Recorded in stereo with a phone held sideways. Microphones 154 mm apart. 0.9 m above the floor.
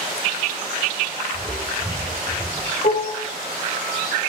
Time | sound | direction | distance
1.3 | footsteps | 25° left (ahead or behind) | 6.5 m
2.8 | dishes clattering | 80° left | 1.7 m